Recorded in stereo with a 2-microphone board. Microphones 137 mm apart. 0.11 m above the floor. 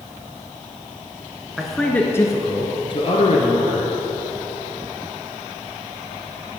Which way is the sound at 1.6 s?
5° right (ahead or behind).